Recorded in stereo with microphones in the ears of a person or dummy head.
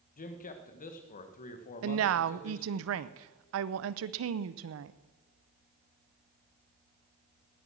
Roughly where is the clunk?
I don't hear a clunk.